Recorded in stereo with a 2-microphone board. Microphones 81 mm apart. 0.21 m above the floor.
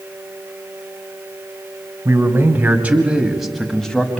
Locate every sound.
2.0 s a man speaking: 30° right (ahead or behind), 1.6 m; by 4.2 s 10° left (ahead or behind), 1.6 m